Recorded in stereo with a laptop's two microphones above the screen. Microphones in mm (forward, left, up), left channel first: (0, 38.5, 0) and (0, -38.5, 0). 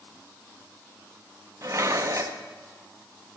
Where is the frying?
No frying in this recording.